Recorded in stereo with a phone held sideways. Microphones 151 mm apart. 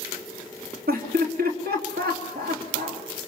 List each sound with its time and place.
0.9 s laughter: 85° right, 3 m